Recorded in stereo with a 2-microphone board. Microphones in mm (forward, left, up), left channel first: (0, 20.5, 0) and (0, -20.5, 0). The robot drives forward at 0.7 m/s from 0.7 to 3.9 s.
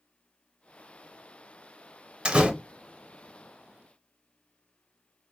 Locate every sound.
2.2 s a door slam: 25° right (ahead or behind), 0.6 m